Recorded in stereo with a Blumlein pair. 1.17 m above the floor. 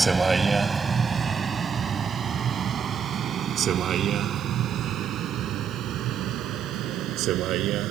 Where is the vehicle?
10° right; by 7.9 s 35° right.